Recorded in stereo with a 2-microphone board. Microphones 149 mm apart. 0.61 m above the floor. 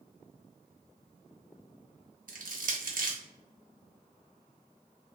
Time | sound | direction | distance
2.3 | crushing | 70° right (ahead or behind) | 0.6 m